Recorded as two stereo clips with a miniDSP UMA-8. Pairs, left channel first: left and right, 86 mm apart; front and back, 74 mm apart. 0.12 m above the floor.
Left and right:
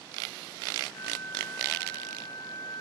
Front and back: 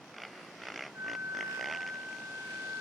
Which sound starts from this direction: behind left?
A flute, at 0.9 s.